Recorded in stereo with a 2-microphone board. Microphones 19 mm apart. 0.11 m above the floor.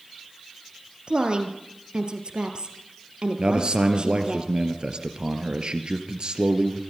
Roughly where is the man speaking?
Right.